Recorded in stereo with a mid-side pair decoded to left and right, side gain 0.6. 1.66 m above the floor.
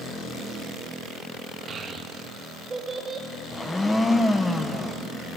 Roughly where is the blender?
Ahead.